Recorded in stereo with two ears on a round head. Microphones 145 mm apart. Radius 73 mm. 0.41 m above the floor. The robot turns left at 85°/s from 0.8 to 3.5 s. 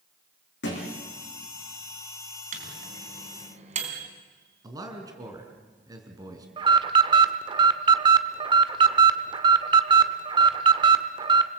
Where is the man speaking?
25° right (ahead or behind), 4 m.